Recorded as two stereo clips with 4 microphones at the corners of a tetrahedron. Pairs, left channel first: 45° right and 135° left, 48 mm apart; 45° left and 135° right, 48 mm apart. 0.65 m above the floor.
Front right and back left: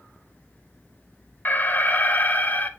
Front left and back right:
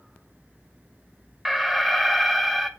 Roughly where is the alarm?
Ahead right.